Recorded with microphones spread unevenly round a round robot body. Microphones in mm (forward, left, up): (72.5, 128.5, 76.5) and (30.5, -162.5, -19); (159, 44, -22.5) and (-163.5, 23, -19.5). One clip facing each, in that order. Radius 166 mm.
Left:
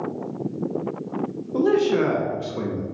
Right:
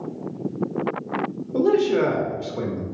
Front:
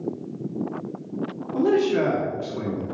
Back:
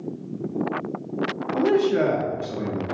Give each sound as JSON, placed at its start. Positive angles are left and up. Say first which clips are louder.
{"t": 1.5, "sound": "a man speaking", "louder": "even, even", "azimuth_deg": -55, "distance_m": 1.0}